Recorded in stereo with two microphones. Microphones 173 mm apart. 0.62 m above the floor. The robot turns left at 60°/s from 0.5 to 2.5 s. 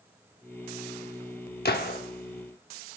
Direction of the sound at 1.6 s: 65° left (ahead or behind).